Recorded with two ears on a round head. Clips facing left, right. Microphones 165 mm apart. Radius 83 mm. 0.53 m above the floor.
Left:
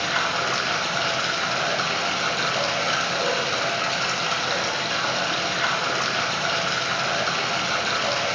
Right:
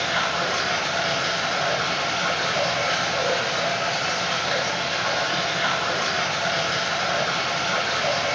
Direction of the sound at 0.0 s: 65° left (ahead or behind).